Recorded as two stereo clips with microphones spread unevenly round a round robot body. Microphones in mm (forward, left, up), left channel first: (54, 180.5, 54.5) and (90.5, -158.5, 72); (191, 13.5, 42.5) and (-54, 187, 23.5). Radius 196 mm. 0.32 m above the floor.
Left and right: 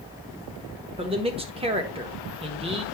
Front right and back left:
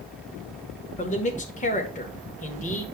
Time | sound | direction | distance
1.0 | a man speaking | 35° right | 1.3 m